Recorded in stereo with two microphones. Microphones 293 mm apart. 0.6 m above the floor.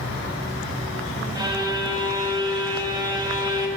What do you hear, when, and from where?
1.4 s a violin: 15° right (ahead or behind), 0.5 m